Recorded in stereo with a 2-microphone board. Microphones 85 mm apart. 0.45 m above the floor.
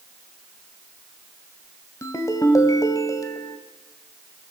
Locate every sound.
2.0 s a ringtone: 40° left (ahead or behind), 2 m